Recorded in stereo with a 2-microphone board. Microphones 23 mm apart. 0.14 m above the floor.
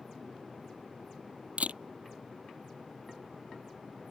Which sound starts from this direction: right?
A camera shutter, at 1.6 s.